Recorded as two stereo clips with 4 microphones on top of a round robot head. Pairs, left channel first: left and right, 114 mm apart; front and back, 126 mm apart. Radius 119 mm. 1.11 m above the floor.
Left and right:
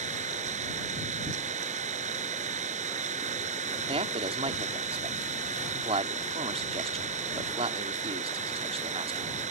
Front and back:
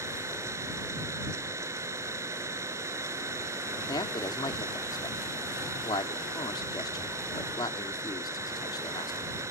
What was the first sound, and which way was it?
An engine running, 105° right.